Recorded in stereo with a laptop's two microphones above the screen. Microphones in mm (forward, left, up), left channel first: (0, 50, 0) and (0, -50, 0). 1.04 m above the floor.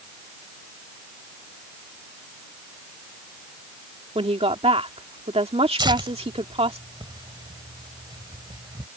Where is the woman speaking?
75° right (ahead or behind).